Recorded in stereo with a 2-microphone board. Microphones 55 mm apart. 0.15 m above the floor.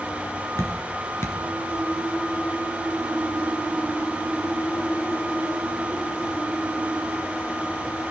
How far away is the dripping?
About 2.0 m.